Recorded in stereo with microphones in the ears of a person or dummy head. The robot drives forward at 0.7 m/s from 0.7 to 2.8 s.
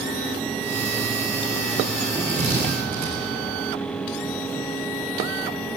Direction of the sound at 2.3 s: 40° right (ahead or behind).